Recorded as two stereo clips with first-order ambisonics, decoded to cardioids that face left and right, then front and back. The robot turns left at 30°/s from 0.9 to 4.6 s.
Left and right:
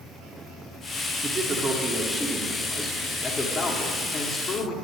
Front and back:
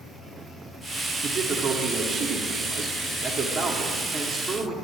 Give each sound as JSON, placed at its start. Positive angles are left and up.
{"t": 1.2, "sound": "a man speaking", "azimuth_deg": -160, "distance_m": 0.9}